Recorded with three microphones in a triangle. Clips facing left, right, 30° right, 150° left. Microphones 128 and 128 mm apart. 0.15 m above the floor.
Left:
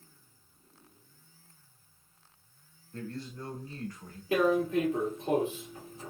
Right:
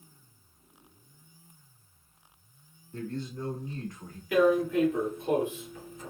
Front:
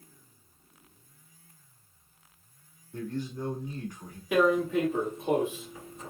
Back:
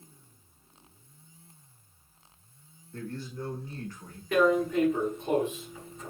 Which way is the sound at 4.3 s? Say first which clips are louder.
Right 3 dB, even; 45° left.